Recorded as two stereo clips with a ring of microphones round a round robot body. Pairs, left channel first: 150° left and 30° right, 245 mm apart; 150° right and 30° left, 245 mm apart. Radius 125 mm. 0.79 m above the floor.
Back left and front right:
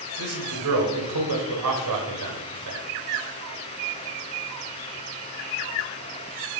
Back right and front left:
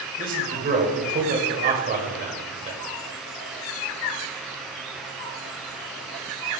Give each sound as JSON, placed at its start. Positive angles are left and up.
{"t": 0.2, "sound": "a man speaking", "azimuth_deg": -30, "distance_m": 3.0}